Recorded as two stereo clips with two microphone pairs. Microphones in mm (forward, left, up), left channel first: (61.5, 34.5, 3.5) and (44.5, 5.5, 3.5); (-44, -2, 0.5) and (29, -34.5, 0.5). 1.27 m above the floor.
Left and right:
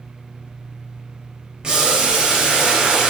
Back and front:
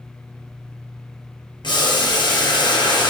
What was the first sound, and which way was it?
Boiling, 175° left.